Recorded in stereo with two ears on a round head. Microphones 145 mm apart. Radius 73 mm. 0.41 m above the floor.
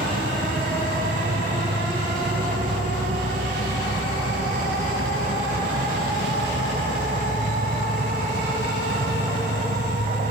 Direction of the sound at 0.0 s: 55° right (ahead or behind).